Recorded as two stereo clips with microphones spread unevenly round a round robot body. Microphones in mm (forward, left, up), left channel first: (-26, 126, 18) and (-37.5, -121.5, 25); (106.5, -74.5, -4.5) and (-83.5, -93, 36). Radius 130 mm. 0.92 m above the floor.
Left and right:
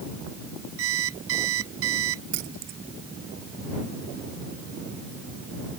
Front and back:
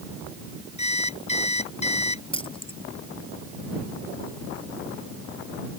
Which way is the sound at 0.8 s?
50° right.